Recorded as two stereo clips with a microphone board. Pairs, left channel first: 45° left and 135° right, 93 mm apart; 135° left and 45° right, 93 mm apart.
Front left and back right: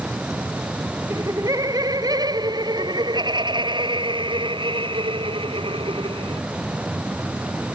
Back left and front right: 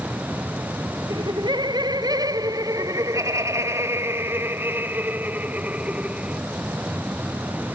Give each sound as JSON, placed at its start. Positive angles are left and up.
{"t": 1.1, "sound": "laughter", "azimuth_deg": -80}